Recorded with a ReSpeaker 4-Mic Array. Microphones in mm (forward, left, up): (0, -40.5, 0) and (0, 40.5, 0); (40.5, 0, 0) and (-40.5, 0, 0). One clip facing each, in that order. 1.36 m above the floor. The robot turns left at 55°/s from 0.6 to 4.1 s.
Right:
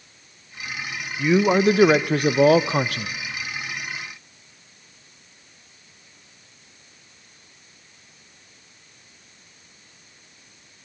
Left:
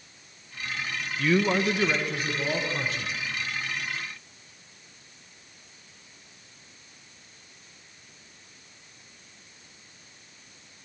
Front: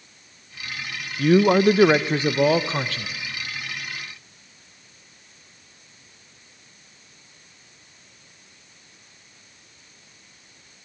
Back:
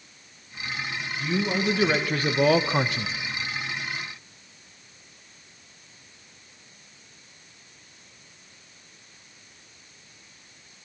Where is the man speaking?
15° right, 0.8 m; by 3.1 s 120° right, 0.8 m.